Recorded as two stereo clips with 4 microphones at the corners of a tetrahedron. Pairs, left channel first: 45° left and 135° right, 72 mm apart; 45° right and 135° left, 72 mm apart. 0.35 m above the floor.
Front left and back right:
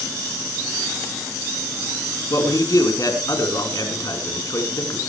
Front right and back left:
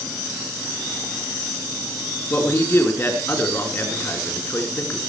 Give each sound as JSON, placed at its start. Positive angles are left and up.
{"t": 2.3, "sound": "a man speaking", "azimuth_deg": 10, "distance_m": 4.5}